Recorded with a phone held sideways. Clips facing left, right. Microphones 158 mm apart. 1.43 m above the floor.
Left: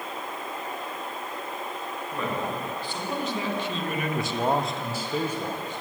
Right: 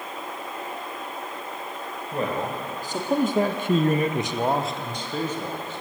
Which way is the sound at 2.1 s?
35° right (ahead or behind).